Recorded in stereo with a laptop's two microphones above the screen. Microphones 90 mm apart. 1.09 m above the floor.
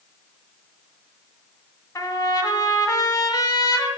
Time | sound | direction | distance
1.9 | a trumpet | 35° left (ahead or behind) | 1.1 m